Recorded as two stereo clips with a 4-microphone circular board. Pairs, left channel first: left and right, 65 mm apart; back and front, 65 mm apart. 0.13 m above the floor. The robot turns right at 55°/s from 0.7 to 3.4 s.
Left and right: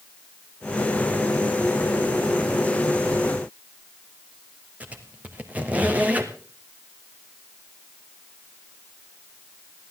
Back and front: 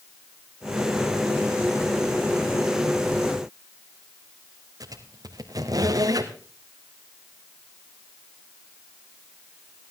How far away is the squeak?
About 2 m.